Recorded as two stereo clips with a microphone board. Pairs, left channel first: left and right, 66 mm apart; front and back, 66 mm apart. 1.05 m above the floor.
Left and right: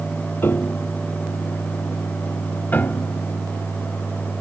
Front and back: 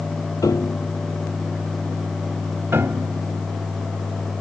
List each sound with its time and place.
0.4 s a piano: 30° left
2.7 s a piano: 145° left